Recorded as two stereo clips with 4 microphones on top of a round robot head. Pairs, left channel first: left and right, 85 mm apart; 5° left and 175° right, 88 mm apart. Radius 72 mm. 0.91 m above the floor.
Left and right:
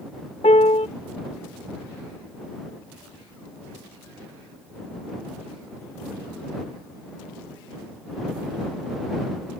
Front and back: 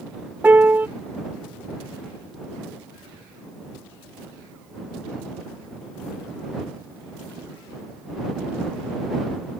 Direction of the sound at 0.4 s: 115° left.